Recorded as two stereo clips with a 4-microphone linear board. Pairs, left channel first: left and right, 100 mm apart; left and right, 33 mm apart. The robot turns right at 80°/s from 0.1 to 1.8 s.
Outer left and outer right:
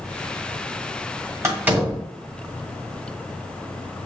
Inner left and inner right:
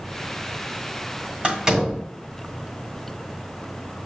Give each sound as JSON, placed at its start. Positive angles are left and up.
{"t": 1.4, "sound": "a door slam", "side_deg": -35, "distance_m": 1.5}